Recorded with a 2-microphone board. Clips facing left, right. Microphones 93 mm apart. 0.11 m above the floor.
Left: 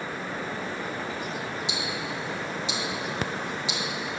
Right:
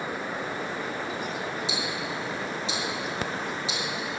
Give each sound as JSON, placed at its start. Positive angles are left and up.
{"t": 1.7, "sound": "ticking", "side_deg": -30, "distance_m": 2.0}